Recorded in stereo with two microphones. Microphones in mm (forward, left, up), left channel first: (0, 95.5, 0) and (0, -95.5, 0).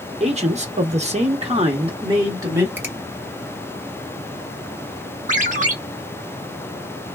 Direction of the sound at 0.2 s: 35° right (ahead or behind).